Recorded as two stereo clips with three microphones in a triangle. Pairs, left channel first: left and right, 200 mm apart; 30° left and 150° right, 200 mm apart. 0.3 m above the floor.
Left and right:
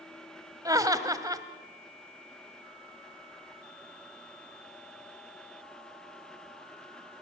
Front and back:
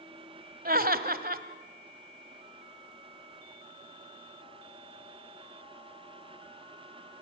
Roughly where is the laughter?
Behind right.